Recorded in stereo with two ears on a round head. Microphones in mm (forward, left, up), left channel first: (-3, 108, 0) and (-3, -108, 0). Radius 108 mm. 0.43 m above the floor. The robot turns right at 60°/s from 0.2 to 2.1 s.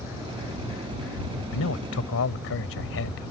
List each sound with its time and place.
1.5 s a man speaking: 70° left; by 3.3 s 105° left